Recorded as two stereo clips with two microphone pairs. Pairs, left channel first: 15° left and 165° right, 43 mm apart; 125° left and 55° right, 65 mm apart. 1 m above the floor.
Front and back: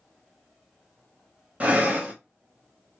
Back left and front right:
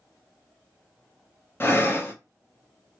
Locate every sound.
1.6 s breathing: 160° left, 0.7 m